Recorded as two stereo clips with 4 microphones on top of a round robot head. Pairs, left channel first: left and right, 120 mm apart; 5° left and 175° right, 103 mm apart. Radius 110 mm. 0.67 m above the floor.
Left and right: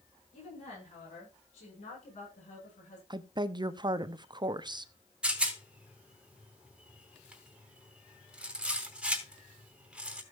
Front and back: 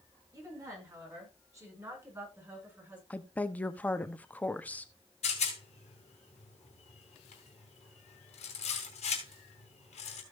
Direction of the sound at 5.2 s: 10° right.